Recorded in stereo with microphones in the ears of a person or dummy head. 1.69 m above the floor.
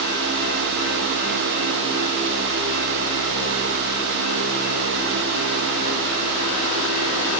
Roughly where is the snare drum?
I don't hear a snare drum.